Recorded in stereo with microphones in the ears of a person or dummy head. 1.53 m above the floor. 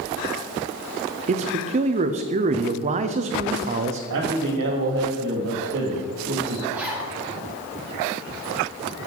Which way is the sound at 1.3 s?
30° right (ahead or behind).